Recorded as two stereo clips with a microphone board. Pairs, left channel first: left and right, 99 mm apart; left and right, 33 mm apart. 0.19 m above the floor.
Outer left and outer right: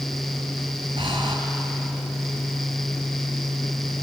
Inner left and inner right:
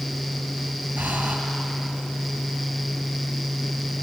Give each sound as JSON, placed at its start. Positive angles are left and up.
{"t": 1.0, "sound": "breathing", "side_deg": -55, "distance_m": 2.0}